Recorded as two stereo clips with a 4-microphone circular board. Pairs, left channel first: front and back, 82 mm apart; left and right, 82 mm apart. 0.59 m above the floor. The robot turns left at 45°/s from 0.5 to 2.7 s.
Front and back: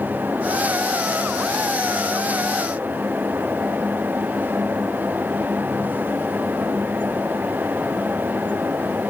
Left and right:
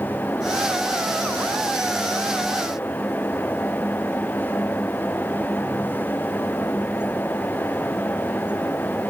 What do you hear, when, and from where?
Only background noise.